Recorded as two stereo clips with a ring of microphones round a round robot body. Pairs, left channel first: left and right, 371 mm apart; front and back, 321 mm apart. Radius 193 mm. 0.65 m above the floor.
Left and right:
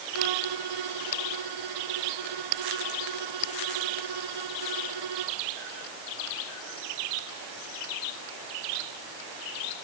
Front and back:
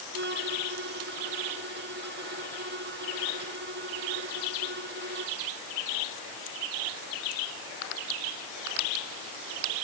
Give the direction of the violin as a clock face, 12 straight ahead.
4 o'clock.